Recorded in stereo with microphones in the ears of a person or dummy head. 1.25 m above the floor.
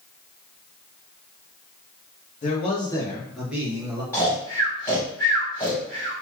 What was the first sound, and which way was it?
A man speaking, 40° left (ahead or behind).